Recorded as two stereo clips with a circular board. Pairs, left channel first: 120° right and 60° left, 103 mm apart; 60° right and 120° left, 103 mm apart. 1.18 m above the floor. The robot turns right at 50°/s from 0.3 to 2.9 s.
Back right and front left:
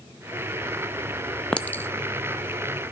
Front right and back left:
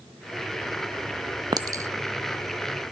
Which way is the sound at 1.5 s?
160° left.